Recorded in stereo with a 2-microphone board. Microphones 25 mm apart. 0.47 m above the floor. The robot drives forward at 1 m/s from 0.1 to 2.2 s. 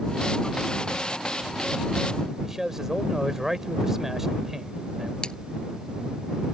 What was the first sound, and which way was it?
A man speaking, 15° right (ahead or behind).